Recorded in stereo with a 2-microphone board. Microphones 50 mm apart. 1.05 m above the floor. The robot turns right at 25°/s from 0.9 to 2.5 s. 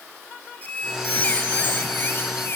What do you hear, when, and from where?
0.6 s a squeak: 35° left, 1.3 m; by 2.6 s 75° left, 1.3 m